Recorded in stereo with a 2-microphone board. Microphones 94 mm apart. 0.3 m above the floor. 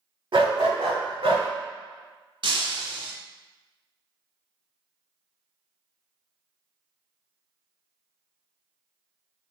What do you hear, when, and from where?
0.3 s a dog barking: 60° right (ahead or behind), 0.6 m; by 1.5 s 65° right (ahead or behind), 1.0 m
2.4 s breaking glass: 65° right (ahead or behind), 0.6 m